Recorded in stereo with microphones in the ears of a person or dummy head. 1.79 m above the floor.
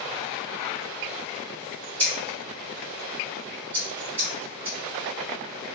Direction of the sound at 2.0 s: 15° right (ahead or behind).